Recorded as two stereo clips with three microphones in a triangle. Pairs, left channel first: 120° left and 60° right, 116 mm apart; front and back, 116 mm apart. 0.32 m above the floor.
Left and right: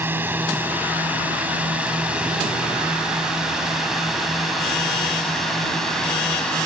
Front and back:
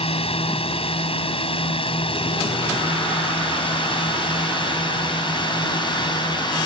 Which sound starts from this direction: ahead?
A drone, at 0.0 s.